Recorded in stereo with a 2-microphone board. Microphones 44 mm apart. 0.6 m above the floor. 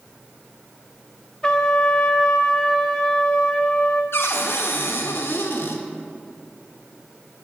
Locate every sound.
1.4 s a trumpet: 20° left (ahead or behind), 0.5 m
4.1 s a cupboard door: 65° left (ahead or behind), 0.7 m